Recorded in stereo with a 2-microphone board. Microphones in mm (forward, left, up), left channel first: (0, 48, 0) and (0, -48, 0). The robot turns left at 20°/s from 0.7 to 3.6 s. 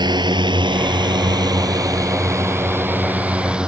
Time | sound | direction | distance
0.0 | a drone | 50° right (ahead or behind) | ?